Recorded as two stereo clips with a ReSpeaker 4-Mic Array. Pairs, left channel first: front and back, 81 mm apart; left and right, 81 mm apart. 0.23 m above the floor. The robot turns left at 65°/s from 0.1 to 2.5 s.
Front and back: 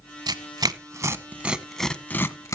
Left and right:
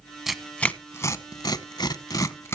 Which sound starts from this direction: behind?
Tearing paper, at 0.3 s.